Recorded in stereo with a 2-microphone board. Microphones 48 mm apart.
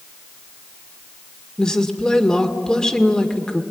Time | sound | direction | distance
1.6 | a woman speaking | 15° left (ahead or behind) | 1.9 m